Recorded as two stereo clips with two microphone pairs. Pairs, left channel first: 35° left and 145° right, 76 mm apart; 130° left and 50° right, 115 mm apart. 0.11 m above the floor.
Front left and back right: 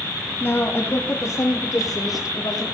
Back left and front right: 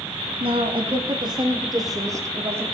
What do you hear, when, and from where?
0.4 s a woman speaking: 20° right, 3.5 m; by 2.6 s 15° left, 3.5 m